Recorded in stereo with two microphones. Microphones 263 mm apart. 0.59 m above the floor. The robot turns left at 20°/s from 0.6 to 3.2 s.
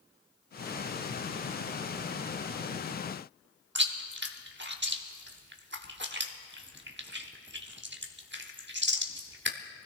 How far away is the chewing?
About 1.0 m.